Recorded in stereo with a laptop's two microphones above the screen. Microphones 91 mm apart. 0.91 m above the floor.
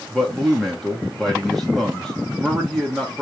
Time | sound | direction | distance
0.1 | a man speaking | 5° left (ahead or behind) | 1.0 m